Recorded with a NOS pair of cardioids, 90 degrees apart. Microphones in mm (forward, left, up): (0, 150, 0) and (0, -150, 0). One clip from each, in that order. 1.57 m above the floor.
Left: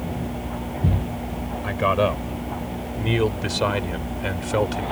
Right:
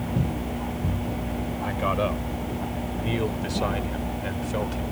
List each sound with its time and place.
1.6 s a man speaking: 40° left; by 4.8 s 60° left